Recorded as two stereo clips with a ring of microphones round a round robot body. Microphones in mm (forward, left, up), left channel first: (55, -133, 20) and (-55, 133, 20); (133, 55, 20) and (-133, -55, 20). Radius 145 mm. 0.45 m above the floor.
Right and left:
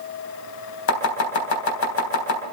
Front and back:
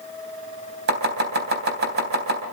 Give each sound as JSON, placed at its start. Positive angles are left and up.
{"t": 0.9, "sound": "chopping", "azimuth_deg": -105, "distance_m": 3.5}